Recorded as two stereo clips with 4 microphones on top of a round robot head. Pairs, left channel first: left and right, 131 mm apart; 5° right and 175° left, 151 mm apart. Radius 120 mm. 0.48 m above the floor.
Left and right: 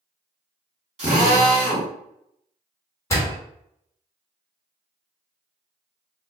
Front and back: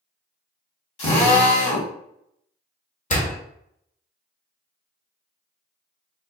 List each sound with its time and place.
1.0 s a drill: 40° right, 2 m
3.1 s a door slam: 20° left, 1.5 m